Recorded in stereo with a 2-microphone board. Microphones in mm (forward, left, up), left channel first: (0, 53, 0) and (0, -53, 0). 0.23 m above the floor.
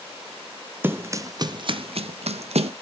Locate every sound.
0.8 s running footsteps: 20° right (ahead or behind), 0.8 m; by 2.7 s 75° right (ahead or behind), 0.7 m